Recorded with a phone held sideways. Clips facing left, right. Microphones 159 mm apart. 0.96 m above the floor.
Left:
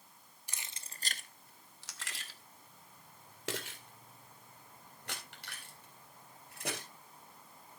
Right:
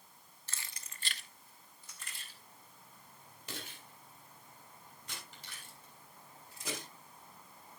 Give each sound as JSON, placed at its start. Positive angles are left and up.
{"t": 0.5, "sound": "keys jangling", "side_deg": 15, "distance_m": 1.0}